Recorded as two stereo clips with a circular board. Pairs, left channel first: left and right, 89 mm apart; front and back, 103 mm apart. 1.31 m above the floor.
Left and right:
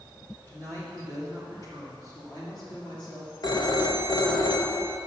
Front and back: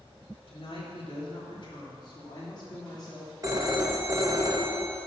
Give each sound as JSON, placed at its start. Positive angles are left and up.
{"t": 0.5, "sound": "a woman speaking", "azimuth_deg": 25, "distance_m": 1.6}
{"t": 3.4, "sound": "a phone ringing", "azimuth_deg": 125, "distance_m": 0.9}